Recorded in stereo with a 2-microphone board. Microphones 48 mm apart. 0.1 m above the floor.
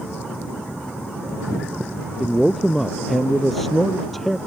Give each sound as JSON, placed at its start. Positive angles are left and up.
{"t": 2.2, "sound": "a man speaking", "side_deg": 5}